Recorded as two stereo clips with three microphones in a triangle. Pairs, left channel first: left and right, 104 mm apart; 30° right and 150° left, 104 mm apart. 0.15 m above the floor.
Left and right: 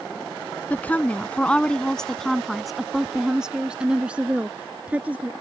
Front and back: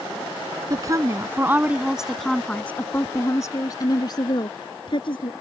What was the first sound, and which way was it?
A woman speaking, 155° left.